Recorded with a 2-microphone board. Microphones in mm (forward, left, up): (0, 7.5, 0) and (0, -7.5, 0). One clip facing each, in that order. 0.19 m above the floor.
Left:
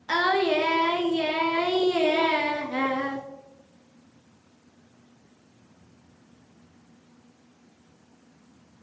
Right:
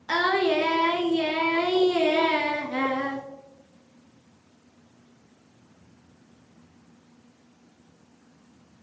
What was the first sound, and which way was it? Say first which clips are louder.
Singing: even; 5° left (ahead or behind).